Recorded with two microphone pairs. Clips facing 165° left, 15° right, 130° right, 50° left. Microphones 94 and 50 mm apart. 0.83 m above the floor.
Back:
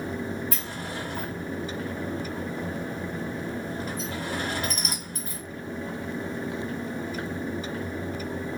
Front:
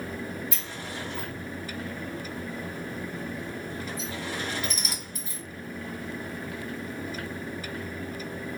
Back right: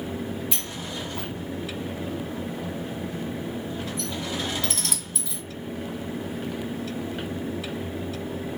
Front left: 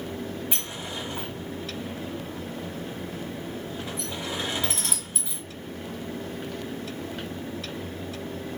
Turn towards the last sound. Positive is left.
turn(degrees=120)